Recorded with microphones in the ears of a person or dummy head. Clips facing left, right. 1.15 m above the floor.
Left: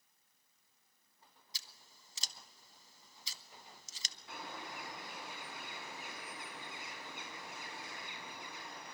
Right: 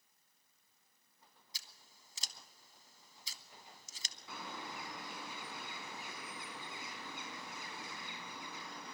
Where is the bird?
80° right, 5 m.